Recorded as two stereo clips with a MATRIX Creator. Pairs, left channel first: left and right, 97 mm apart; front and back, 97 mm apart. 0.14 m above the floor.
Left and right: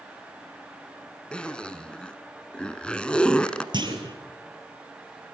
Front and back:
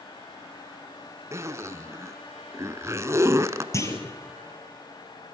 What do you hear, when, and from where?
1.3 s a zipper: 160° left, 0.9 m
3.7 s a clunk: 55° right, 3 m